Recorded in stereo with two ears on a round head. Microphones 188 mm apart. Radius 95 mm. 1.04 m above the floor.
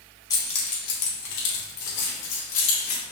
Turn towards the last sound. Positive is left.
turn(degrees=85)